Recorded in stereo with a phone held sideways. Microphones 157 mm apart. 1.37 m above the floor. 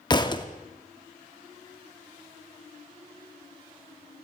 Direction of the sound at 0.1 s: 30° left (ahead or behind).